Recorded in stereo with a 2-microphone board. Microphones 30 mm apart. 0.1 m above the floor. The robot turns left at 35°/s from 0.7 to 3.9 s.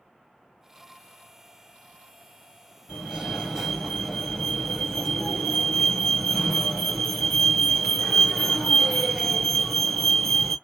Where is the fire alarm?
140° right, 2.5 m; by 10.6 s 175° right, 2.5 m.